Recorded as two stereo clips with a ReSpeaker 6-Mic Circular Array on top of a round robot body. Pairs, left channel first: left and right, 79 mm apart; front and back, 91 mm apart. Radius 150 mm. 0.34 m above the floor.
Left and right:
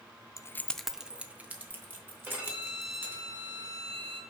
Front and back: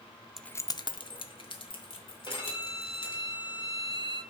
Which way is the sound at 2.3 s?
30° right.